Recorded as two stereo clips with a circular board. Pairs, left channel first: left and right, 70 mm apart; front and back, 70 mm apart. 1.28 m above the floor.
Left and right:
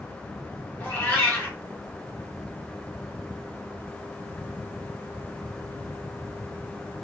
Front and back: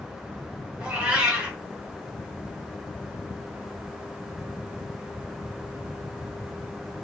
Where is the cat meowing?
130° left, 0.9 m.